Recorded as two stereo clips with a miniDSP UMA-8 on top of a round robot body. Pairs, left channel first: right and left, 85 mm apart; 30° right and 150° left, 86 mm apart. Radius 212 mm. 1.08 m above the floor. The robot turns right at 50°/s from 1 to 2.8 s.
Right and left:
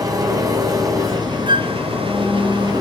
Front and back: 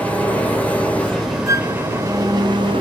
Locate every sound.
0.0 s an engine running: 45° left, 3.5 m; by 2.8 s 135° left, 3.5 m
1.5 s a flute: 100° left, 1.3 m; by 1.8 s 115° left, 1.3 m